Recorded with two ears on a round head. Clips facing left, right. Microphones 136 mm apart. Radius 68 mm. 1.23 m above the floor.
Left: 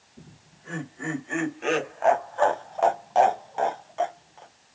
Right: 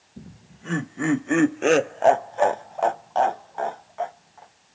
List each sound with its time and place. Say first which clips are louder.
0.2 s laughter: right 7 dB; 85° right, 1.3 m; by 4.5 s 35° left (ahead or behind), 1.4 m